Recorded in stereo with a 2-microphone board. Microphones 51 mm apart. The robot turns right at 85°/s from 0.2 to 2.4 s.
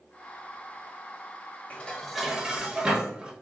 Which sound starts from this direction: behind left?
Dishes clattering, at 1.7 s.